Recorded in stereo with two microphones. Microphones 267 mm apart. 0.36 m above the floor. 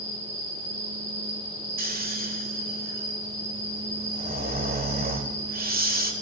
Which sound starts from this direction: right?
Snoring, at 1.8 s.